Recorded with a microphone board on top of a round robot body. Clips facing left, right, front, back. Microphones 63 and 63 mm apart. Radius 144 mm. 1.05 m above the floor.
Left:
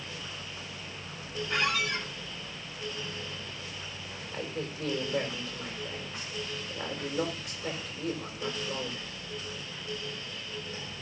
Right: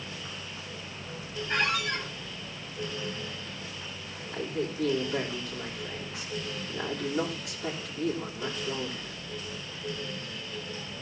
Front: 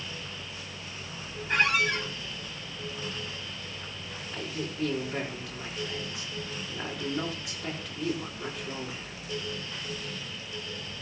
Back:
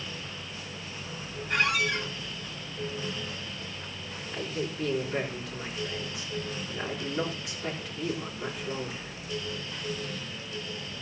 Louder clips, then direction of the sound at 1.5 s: Right 1 dB, front 1 dB; 45° right.